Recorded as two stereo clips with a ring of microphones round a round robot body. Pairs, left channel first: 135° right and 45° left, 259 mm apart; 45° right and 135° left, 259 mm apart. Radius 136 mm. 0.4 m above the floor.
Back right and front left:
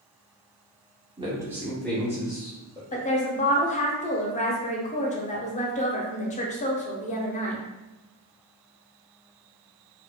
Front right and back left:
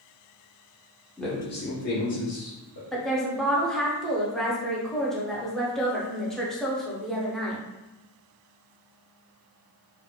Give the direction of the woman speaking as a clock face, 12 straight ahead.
4 o'clock.